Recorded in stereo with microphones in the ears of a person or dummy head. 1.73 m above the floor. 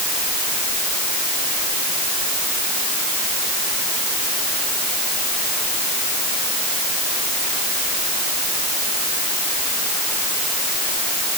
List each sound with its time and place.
Only background noise.